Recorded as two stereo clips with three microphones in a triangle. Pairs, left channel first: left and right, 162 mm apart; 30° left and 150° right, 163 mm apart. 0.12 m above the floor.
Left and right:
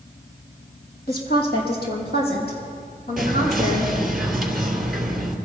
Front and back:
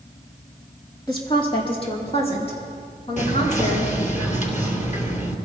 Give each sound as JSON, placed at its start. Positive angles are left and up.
{"t": 1.1, "sound": "a woman speaking", "azimuth_deg": 90, "distance_m": 3.5}
{"t": 3.2, "sound": "whispering", "azimuth_deg": 0, "distance_m": 3.0}